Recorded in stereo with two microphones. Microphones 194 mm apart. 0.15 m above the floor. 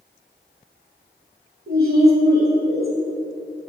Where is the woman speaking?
55° right (ahead or behind), 2 m.